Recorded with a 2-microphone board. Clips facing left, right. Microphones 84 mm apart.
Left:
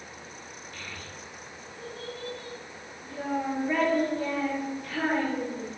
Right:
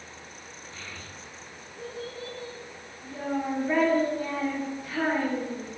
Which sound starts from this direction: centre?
A child speaking, at 0.7 s.